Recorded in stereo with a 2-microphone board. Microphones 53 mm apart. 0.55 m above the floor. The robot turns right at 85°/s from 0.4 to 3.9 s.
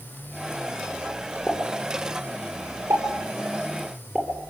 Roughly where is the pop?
Left.